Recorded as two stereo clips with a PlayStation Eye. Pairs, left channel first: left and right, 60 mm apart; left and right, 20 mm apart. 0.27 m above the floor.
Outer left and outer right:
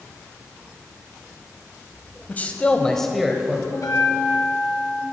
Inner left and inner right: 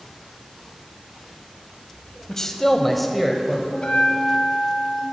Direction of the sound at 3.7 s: 65° left (ahead or behind).